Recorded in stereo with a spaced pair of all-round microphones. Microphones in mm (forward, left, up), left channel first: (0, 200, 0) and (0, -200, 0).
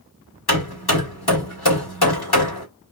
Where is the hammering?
75° left (ahead or behind), 2 m.